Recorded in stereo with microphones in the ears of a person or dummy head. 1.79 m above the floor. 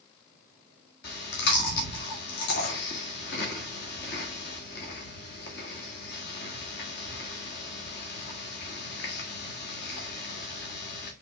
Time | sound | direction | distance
1.0 | chewing | 50° left (ahead or behind) | 1.7 m